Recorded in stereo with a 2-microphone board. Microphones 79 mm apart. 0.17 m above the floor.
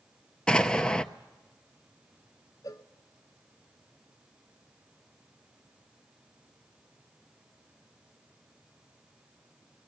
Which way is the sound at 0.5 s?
10° left (ahead or behind).